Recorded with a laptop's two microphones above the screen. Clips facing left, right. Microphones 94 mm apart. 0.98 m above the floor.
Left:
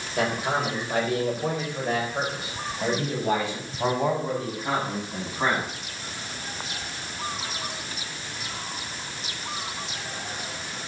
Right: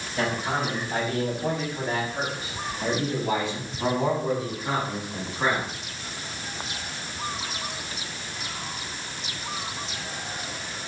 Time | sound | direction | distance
0.2 | a man speaking | 85° left | 3.5 m